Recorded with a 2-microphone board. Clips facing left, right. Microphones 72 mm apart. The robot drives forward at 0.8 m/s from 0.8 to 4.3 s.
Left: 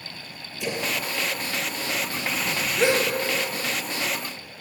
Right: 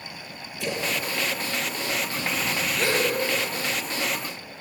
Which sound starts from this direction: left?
A gasp, at 2.8 s.